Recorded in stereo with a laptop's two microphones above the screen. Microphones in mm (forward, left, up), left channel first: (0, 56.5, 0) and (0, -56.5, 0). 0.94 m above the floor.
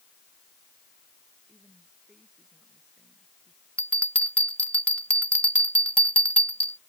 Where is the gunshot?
No gunshot in this recording.